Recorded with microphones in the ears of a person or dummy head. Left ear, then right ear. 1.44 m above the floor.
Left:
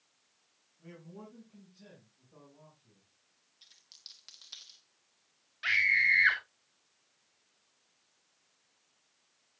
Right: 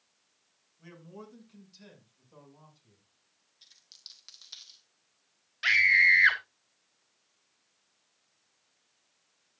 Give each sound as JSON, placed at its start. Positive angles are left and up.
{"t": 0.8, "sound": "a man speaking", "side_deg": -55, "distance_m": 7.0}
{"t": 3.6, "sound": "a dropped coin", "side_deg": 0, "distance_m": 1.1}
{"t": 5.6, "sound": "a scream", "side_deg": -25, "distance_m": 1.2}